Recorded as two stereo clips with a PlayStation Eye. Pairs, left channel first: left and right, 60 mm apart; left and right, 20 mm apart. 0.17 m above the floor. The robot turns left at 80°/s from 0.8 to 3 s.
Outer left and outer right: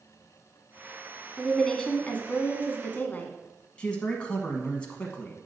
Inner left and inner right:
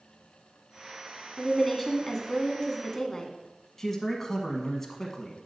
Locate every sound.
1.4 s a woman speaking: 170° right, 1.2 m; by 3.4 s 60° left, 1.2 m
3.8 s a man speaking: 20° left (ahead or behind), 1.0 m